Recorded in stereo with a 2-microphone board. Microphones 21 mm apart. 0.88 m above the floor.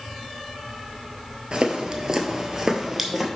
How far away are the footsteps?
About 1.1 m.